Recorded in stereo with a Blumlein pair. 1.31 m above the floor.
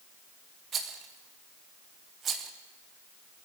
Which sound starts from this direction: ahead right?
A rattle, at 0.7 s.